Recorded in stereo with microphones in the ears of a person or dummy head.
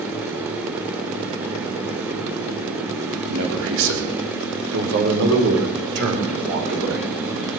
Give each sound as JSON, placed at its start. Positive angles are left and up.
{"t": 3.3, "sound": "a man speaking", "side_deg": -70, "distance_m": 4.5}